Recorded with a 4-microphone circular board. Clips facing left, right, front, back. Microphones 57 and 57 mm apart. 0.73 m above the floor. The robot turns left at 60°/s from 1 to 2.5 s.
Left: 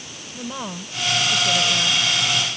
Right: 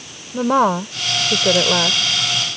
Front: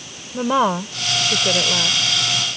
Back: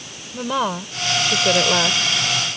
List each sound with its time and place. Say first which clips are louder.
0.3 s a woman speaking: right 16 dB, front 4 dB; 75° right; by 2.0 s 130° right